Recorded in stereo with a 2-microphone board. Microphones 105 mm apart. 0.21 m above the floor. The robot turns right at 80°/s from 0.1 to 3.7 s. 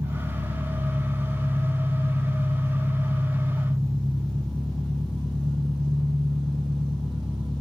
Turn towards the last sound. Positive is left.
turn(degrees=180)